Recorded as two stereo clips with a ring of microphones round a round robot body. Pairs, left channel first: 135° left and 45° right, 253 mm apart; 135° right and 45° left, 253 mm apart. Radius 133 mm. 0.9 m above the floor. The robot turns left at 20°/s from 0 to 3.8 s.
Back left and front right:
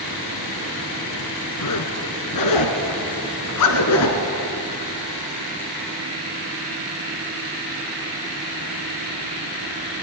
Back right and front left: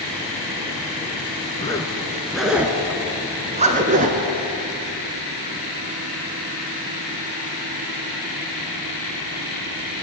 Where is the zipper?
150° left, 2 m; by 4.2 s 105° left, 2 m.